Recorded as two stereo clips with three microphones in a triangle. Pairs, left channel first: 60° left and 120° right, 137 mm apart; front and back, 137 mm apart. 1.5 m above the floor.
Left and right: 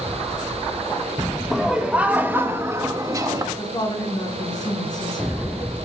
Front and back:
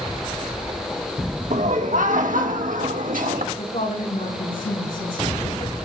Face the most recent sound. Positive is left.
turn(degrees=0)